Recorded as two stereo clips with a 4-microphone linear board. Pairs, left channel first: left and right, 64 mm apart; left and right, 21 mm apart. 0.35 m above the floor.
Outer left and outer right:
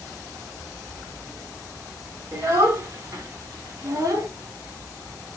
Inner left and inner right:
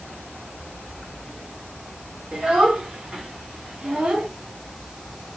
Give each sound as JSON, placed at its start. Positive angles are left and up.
{"t": 2.3, "sound": "a child speaking", "side_deg": -55, "distance_m": 3.0}